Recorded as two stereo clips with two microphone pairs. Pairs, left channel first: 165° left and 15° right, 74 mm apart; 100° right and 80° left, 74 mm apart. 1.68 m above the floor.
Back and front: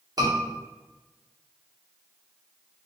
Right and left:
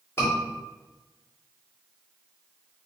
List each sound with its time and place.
0.2 s a scream: 45° right, 1.8 m